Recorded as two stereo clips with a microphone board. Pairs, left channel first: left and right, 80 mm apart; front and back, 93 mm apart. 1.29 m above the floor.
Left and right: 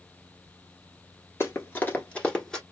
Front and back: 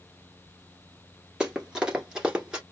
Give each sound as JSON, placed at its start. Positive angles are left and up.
{"t": 1.4, "sound": "running footsteps", "azimuth_deg": 105, "distance_m": 1.4}